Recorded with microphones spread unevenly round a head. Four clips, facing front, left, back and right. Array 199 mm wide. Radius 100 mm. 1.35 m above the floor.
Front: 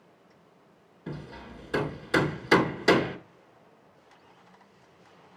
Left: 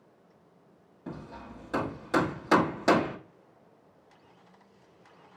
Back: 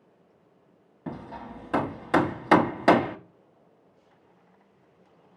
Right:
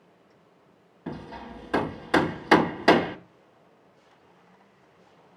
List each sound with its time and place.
1.1 s hammering: 165° right, 1.2 m